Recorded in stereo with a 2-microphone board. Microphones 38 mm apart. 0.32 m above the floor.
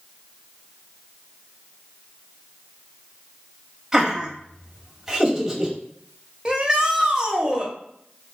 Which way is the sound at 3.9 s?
15° right (ahead or behind).